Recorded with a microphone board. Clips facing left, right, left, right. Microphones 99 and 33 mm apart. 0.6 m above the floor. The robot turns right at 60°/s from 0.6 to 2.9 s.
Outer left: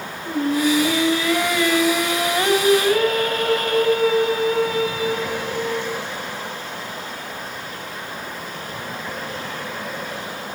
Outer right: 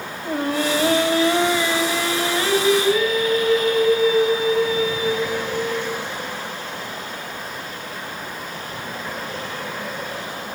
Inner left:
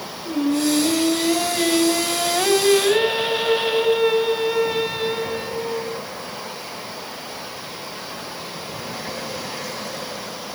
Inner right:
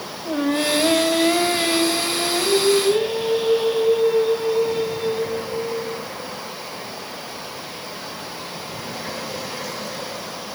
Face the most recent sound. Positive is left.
turn(degrees=70)